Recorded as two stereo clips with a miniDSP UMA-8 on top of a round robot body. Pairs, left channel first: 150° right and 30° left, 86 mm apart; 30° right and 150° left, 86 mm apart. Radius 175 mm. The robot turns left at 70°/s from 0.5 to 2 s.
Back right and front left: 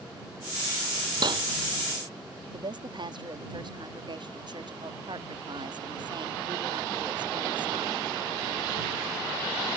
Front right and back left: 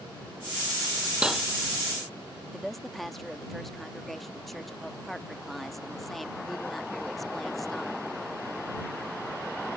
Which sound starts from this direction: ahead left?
A woman speaking, at 2.5 s.